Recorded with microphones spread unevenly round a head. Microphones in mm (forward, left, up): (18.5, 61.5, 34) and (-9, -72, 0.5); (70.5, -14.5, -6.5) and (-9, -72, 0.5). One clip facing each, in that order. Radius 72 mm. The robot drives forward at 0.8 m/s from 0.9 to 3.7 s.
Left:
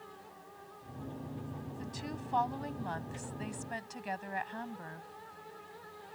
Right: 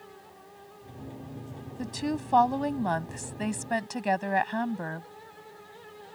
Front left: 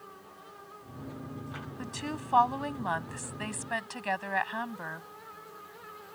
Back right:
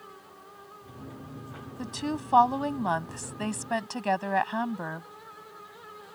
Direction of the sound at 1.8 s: 80° right.